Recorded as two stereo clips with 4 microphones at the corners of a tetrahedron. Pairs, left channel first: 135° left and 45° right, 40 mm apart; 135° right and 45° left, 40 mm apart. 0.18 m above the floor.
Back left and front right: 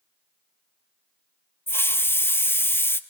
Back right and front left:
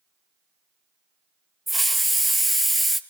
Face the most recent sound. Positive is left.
turn(degrees=135)